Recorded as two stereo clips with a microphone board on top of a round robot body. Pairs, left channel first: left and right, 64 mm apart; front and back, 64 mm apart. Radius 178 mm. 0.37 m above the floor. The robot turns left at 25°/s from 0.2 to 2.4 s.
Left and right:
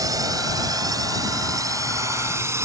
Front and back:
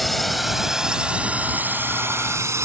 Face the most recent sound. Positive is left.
turn(degrees=-135)